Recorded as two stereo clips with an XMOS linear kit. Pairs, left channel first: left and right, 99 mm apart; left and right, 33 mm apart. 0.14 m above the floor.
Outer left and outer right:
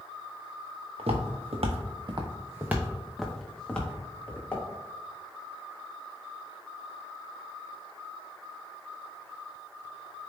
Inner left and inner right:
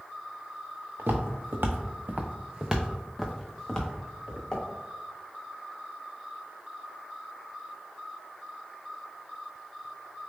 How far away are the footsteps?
About 0.8 m.